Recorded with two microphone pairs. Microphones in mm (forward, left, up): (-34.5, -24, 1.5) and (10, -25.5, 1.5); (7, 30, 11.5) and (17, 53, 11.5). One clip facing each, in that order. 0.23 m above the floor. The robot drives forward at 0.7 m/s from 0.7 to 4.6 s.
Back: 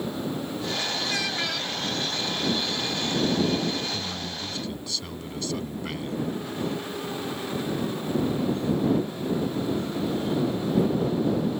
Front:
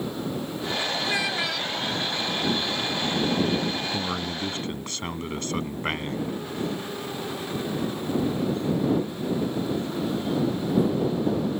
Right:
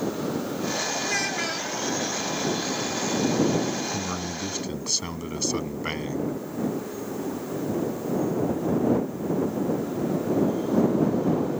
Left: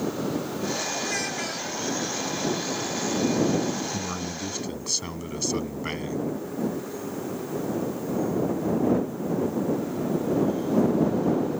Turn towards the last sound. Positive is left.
turn(degrees=-30)